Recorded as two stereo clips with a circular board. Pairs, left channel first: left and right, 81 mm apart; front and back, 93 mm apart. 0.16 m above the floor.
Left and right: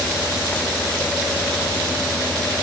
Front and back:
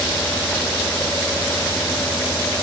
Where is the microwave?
I don't hear a microwave.